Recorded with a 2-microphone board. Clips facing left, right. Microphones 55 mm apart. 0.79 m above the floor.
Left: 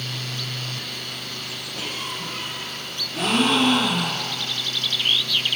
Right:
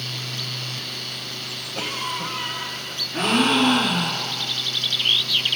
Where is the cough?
70° right (ahead or behind), 5.5 m.